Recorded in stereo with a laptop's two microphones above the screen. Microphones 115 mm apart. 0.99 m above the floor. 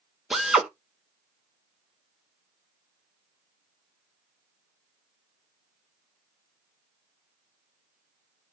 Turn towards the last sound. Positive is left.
turn(degrees=-5)  # may be behind; listen again after turning